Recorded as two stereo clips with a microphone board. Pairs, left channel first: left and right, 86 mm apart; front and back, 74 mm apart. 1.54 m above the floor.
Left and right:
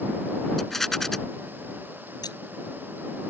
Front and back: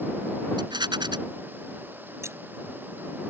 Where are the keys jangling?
130° left.